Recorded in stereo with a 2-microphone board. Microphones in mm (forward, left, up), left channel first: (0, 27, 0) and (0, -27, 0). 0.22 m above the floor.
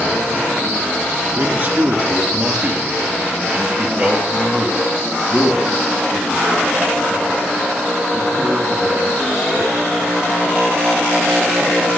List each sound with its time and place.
1.4 s a man speaking: 40° right (ahead or behind), 3.5 m; by 9.8 s 5° right (ahead or behind), 9 m